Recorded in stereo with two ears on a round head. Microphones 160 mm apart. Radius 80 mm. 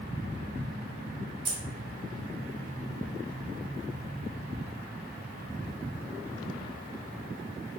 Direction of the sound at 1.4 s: 30° right (ahead or behind).